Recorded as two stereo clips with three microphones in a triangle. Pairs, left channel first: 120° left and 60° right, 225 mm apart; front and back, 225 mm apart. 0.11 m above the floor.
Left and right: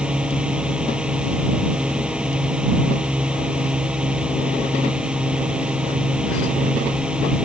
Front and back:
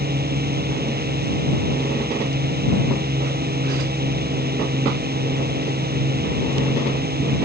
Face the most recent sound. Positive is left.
turn(degrees=-145)